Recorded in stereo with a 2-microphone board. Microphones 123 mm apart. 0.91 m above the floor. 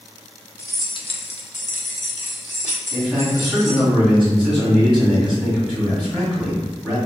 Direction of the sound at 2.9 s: 10° left (ahead or behind).